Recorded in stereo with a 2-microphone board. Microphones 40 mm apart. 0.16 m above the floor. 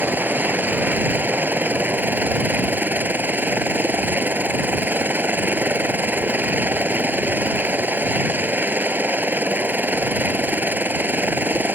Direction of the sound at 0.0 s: 55° right (ahead or behind).